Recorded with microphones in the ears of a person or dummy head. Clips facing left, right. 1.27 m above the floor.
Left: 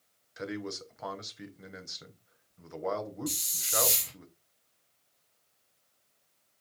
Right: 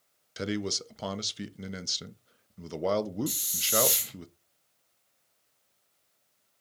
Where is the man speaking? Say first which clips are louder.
Right 5 dB; 45° right (ahead or behind), 0.5 m.